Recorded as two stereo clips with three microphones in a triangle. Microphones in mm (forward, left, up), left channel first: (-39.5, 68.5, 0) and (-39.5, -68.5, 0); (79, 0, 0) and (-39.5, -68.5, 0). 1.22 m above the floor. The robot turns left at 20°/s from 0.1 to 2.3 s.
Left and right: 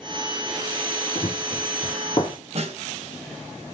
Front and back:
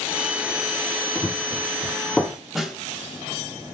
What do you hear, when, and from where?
1.1 s running footsteps: 100° left, 1.6 m; by 2.4 s 105° left, 1.3 m
2.5 s a snare drum: 60° right, 1.7 m